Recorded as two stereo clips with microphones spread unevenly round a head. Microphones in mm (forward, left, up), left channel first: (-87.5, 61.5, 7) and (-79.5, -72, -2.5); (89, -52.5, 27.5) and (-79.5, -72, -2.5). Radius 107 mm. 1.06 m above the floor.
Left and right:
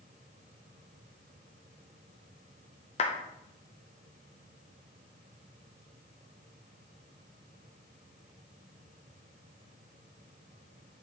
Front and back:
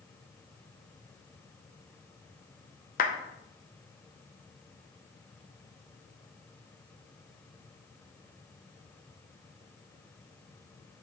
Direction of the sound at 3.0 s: 50° left.